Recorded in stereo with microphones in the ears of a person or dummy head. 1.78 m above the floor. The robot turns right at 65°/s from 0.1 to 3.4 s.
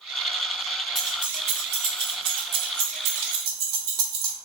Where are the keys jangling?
10° left (ahead or behind), 1.1 m; by 4.3 s 25° right (ahead or behind), 1.1 m.